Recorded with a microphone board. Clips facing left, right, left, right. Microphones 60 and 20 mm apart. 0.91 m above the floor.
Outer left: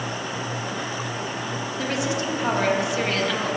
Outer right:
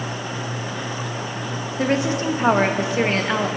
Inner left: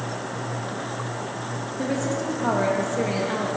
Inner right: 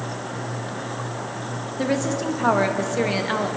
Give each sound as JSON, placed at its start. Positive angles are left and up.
{"t": 1.8, "sound": "a woman speaking", "side_deg": -35, "distance_m": 1.3}